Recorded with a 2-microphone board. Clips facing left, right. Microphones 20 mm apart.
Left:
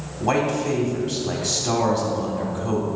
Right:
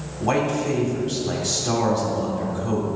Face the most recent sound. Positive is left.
turn(degrees=15)  # may be behind; listen again after turning